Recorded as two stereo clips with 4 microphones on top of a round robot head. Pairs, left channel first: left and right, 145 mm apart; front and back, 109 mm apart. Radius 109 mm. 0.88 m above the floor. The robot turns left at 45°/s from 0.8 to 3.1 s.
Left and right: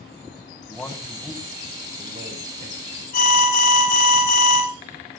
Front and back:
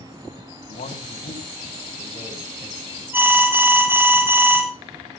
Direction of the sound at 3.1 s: 110° left.